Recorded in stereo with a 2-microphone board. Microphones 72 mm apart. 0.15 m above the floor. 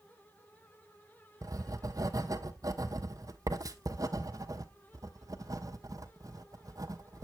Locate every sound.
1.4 s writing: 55° right (ahead or behind), 1.0 m